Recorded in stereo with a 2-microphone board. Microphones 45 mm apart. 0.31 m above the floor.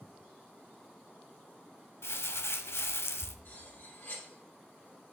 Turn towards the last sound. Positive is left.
turn(degrees=60)  # may be behind; listen again after turning